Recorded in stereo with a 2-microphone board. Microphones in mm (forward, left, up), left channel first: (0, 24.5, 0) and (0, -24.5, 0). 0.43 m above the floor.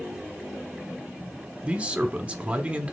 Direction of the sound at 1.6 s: 20° right (ahead or behind).